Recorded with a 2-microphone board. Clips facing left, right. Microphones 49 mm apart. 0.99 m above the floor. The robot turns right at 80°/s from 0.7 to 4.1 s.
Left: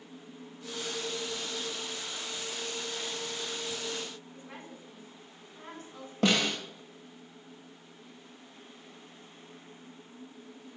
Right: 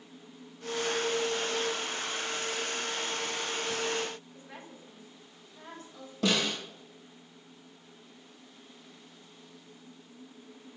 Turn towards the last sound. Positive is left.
turn(degrees=50)  # may be behind; listen again after turning